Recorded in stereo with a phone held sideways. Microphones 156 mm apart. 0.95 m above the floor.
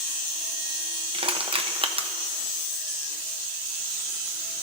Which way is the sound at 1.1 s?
35° right (ahead or behind).